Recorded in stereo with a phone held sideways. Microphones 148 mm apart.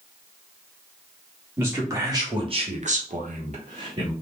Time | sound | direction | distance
1.6 | a man speaking | 15° right (ahead or behind) | 1.7 m